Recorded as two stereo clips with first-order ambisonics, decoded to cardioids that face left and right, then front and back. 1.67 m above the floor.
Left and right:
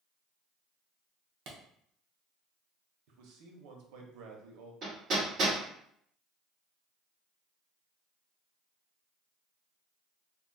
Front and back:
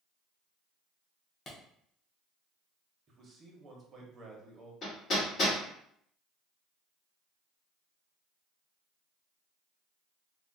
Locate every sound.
1.5 s a clap: 60° right, 0.7 m
3.1 s a man speaking: 115° right, 0.7 m
4.8 s hammering: 55° right, 1.6 m